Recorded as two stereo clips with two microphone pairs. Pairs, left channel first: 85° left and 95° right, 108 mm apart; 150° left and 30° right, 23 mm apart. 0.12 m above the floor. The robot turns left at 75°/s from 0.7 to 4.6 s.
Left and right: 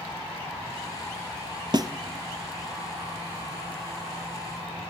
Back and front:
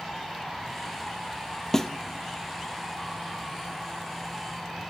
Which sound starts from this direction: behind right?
A snare drum, at 1.7 s.